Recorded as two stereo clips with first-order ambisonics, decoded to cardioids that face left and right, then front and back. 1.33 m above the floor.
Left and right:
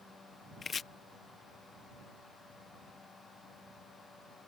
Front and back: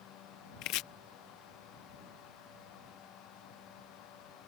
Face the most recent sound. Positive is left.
turn(degrees=25)